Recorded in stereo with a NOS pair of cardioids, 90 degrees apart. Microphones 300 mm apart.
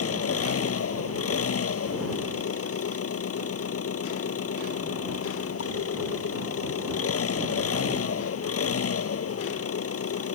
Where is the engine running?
50° left.